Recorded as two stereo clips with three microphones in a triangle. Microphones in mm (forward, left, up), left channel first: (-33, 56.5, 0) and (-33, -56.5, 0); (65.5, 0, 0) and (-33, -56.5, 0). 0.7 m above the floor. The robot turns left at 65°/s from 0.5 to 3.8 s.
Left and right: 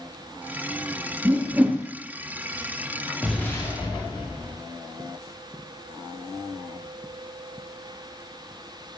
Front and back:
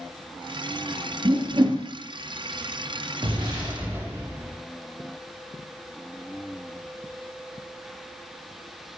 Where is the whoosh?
135° right, 0.7 m; by 1.8 s 170° right, 0.7 m.